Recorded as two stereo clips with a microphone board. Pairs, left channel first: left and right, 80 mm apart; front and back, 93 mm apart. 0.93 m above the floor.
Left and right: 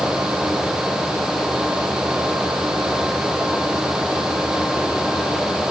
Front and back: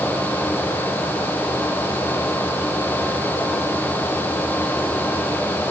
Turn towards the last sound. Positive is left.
No sound to turn to.